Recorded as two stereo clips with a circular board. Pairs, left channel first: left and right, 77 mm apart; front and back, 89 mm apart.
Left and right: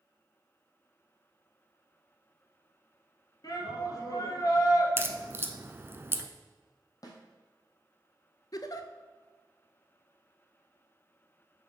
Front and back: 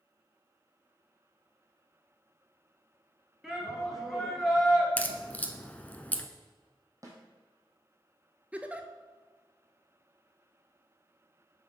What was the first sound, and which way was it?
A shout, 95° left.